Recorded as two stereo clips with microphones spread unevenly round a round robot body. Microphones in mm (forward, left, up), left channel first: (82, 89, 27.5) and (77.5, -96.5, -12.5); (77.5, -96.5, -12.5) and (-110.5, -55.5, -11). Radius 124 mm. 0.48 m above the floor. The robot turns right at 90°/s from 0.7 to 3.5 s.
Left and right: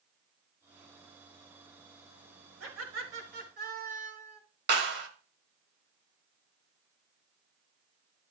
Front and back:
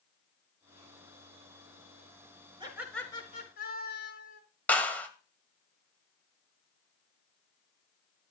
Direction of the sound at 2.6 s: 130° right.